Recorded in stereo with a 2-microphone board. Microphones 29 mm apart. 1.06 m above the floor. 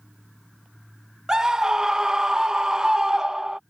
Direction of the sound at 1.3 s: 20° right (ahead or behind).